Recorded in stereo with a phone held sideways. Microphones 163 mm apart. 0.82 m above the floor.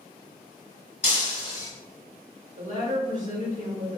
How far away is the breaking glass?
About 1.5 m.